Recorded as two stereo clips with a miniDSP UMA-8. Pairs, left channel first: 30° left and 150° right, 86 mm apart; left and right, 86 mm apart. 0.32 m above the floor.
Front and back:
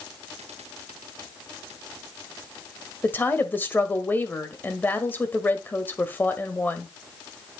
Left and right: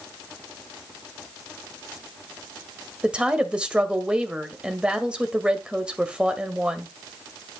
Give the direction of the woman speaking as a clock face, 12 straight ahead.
1 o'clock.